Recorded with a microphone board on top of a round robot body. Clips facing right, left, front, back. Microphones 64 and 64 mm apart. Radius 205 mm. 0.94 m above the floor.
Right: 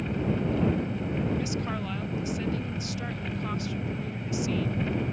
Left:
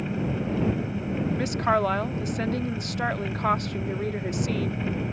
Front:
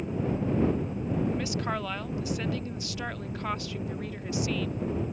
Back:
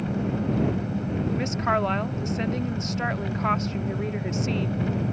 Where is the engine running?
175° left.